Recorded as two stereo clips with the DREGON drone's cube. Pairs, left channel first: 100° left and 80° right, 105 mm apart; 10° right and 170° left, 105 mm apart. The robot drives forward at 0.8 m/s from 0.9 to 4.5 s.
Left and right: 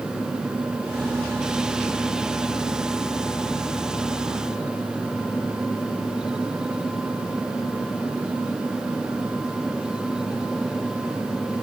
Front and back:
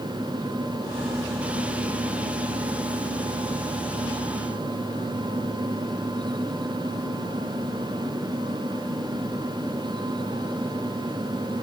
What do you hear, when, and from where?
Only background noise.